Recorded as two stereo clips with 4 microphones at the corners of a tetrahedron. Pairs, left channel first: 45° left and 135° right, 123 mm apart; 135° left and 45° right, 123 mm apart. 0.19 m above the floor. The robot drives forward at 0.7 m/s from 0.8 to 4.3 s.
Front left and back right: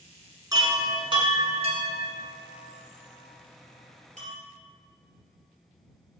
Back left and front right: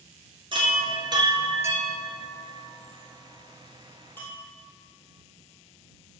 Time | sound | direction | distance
0.5 | a chime | 80° right | 1.3 m